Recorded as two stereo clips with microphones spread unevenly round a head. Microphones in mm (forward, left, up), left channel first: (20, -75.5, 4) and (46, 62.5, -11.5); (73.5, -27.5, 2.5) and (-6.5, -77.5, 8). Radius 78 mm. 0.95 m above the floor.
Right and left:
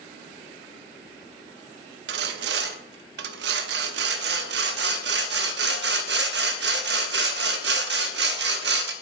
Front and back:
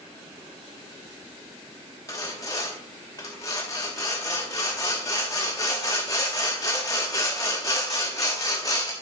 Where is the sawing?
105° left, 0.7 m.